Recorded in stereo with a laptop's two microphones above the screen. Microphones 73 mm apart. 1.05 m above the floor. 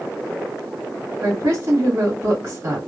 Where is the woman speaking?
40° right (ahead or behind), 1.6 m.